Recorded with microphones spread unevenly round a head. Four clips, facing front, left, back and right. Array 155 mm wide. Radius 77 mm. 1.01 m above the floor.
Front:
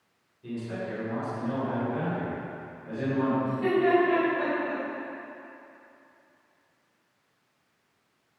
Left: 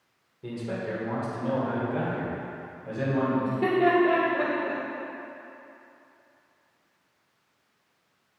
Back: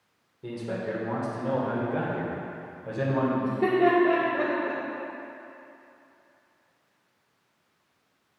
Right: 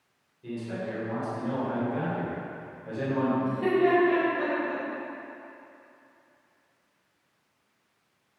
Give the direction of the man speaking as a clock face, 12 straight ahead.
7 o'clock.